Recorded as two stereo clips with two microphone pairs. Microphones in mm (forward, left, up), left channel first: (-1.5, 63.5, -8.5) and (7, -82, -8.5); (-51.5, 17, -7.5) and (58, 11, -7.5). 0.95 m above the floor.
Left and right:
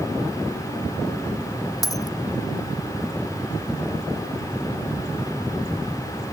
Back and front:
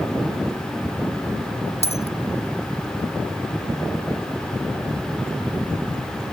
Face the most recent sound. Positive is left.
turn(degrees=160)